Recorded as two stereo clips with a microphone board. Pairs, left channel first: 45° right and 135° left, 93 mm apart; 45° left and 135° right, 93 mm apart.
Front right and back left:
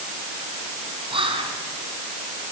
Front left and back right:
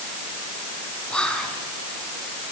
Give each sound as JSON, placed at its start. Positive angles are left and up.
{"t": 1.1, "sound": "whispering", "azimuth_deg": 125, "distance_m": 4.5}